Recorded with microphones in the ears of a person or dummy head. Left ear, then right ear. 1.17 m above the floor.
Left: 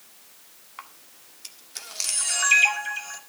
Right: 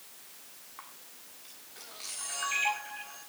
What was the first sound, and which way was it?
A camera shutter, 75° left (ahead or behind).